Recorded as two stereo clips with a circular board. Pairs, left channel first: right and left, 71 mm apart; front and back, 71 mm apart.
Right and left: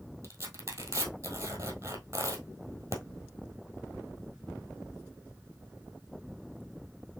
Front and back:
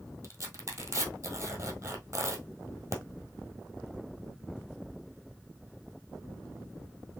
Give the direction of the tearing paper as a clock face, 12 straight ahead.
8 o'clock.